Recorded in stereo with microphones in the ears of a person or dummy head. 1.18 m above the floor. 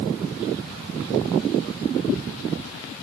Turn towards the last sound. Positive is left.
No sound to turn to.